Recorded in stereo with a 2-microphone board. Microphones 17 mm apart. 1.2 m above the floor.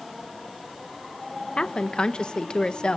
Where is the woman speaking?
65° left (ahead or behind), 1.1 m.